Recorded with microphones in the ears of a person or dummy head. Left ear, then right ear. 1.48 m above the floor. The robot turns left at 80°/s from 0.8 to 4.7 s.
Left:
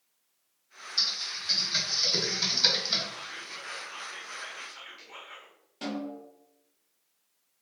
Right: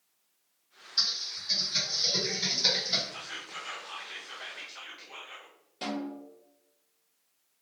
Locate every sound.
1.0 s typing on a keyboard: centre (ahead or behind), 1.5 m; by 3.0 s 15° left (ahead or behind), 1.5 m
3.1 s whispering: 55° right, 0.9 m; by 5.5 s straight behind, 0.9 m
5.8 s a snare drum: centre (ahead or behind), 1.3 m